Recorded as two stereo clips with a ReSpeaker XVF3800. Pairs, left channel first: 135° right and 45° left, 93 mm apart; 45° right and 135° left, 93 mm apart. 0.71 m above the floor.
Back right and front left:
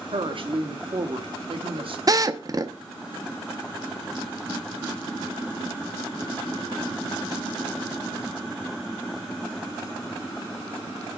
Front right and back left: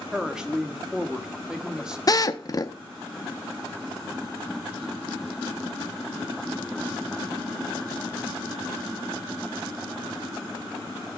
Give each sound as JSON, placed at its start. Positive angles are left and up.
{"t": 0.1, "sound": "a woman speaking", "azimuth_deg": 55, "distance_m": 1.1}
{"t": 2.1, "sound": "a drill", "azimuth_deg": 0, "distance_m": 0.6}